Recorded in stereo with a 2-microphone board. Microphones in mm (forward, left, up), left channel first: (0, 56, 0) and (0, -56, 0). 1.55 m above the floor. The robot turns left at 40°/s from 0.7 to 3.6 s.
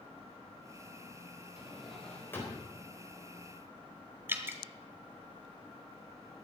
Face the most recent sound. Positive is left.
turn(degrees=-20)  # may be behind; listen again after turning